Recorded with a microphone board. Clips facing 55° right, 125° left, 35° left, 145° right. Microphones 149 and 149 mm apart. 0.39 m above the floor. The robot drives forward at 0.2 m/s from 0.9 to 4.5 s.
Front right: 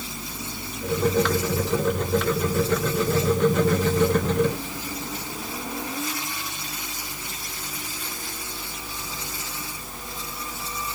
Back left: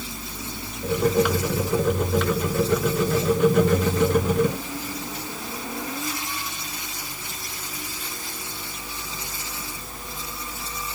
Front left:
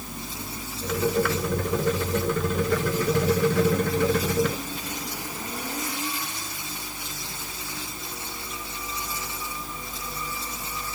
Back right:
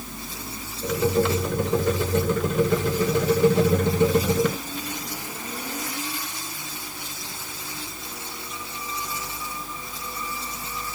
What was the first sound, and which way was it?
Only background noise.